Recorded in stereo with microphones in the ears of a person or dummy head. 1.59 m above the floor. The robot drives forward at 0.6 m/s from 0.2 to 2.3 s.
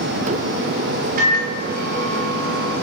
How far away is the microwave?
About 1.3 m.